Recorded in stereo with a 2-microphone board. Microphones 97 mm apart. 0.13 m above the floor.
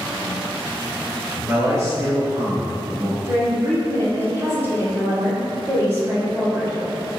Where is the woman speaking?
30° right (ahead or behind), 1.7 m.